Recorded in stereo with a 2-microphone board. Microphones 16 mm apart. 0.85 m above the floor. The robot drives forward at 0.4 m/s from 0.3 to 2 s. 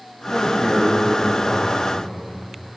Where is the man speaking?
20° left (ahead or behind), 4.5 m; by 2.3 s 25° left (ahead or behind), 4 m.